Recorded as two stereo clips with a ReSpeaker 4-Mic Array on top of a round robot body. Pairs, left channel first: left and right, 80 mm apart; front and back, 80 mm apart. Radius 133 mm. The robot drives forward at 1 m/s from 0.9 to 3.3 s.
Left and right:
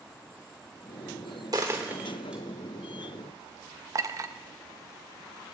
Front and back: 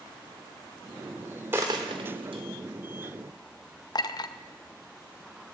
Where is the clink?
40° right, 0.6 m.